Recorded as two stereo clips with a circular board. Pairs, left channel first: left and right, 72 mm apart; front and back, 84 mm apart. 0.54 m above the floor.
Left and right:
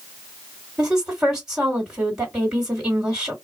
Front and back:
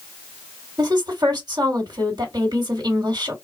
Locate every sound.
0.8 s a woman speaking: 175° right, 1.9 m